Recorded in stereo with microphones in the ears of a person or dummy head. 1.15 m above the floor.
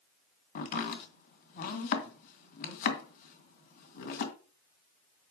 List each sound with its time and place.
0.6 s chopping: 50° left (ahead or behind), 1.8 m